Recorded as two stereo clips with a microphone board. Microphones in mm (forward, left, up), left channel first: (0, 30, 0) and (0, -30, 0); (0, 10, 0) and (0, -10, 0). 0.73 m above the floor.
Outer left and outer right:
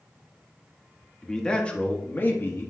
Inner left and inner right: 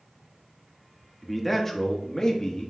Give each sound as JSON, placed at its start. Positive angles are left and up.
{"t": 1.2, "sound": "a man speaking", "side_deg": 10, "distance_m": 1.1}